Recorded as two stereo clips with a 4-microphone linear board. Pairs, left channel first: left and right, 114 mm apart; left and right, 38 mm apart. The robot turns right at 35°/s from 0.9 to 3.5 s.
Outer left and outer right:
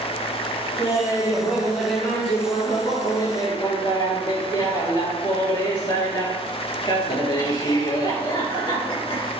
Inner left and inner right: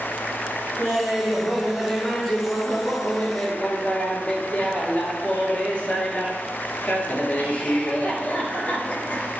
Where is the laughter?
35° right, 2.5 m; by 9.3 s 60° left, 2.5 m.